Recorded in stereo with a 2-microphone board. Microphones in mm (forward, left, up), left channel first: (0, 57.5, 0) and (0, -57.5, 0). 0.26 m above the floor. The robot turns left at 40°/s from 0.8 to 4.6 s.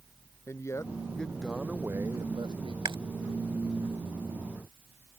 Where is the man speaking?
25° left; by 2.8 s 55° right.